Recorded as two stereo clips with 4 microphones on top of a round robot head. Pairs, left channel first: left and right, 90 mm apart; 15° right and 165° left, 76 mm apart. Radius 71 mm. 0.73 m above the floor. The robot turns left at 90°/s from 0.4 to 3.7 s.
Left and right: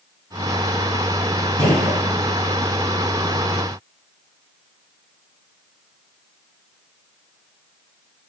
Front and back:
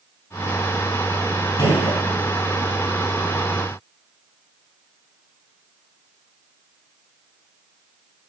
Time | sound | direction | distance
1.6 | a gunshot | 30° left | 4 m